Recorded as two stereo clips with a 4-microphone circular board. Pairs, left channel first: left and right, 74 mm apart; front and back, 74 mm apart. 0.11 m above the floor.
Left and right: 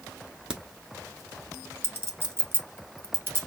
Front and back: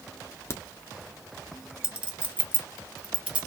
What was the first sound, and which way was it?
A crack, 20° right.